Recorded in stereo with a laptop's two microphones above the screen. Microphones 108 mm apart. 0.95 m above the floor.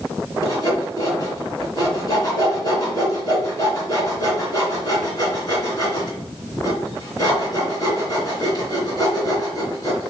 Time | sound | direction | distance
0.4 | sawing | 40° left (ahead or behind) | 2.5 m